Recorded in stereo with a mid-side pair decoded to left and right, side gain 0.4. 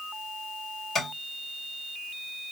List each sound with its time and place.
0.9 s tapping: 50° left, 2 m